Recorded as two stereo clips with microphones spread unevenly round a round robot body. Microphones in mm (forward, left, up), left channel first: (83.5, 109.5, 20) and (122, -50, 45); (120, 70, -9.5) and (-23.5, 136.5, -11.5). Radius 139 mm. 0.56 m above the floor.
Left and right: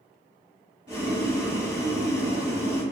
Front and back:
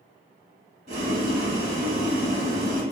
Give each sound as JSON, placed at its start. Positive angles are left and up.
{"t": 0.9, "sound": "boiling", "azimuth_deg": -145, "distance_m": 0.7}